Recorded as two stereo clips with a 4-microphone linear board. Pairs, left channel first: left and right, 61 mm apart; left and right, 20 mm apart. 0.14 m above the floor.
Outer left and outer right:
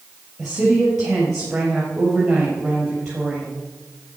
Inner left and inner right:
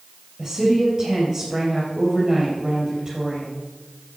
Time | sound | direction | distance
0.4 | a woman speaking | 10° right (ahead or behind) | 3.5 m